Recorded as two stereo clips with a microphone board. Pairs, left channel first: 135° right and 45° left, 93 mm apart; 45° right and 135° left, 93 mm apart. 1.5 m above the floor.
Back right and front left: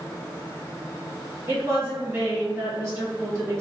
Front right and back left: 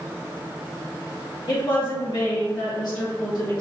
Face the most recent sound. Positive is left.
turn(degrees=-15)